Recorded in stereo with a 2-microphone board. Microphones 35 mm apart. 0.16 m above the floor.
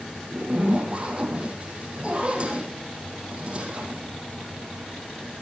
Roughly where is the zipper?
Right.